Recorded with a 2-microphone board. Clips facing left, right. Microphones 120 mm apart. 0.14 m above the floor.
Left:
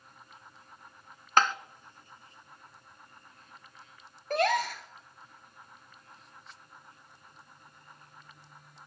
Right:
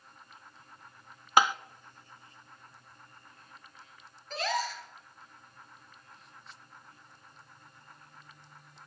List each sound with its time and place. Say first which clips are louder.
1.4 s tapping: right 1 dB; 10° right (ahead or behind), 0.5 m
4.3 s a gasp: left 6 dB; 60° left (ahead or behind), 1.8 m